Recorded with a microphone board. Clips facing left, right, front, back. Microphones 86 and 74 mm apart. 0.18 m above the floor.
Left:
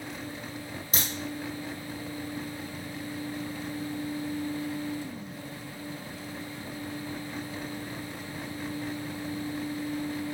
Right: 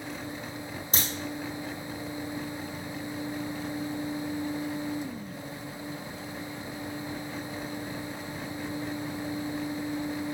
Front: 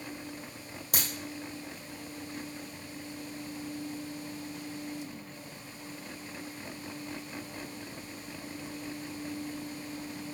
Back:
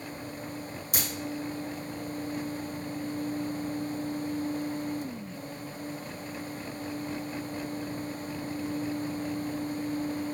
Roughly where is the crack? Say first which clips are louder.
Right 1 dB, even; ahead right.